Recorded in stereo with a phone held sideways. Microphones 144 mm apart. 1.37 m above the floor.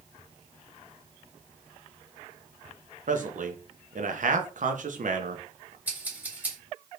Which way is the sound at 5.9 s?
15° right (ahead or behind).